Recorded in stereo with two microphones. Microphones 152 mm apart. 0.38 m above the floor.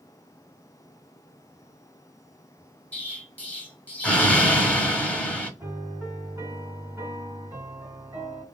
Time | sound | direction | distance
2.9 | an explosion | 10° left (ahead or behind) | 0.8 m
5.6 | a piano | 15° right (ahead or behind) | 1.2 m